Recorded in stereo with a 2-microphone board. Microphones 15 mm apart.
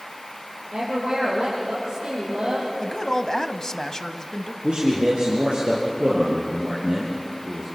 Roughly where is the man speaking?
Right.